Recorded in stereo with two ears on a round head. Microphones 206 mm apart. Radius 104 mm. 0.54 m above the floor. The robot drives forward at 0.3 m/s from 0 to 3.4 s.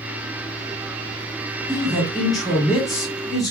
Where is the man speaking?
Centre (ahead or behind), 1.0 m.